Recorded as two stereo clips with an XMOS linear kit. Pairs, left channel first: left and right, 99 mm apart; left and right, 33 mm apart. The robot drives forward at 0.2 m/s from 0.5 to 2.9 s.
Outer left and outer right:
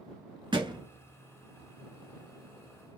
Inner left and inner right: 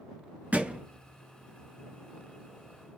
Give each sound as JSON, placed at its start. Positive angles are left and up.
{"t": 0.5, "sound": "a thud", "side_deg": -55, "distance_m": 1.1}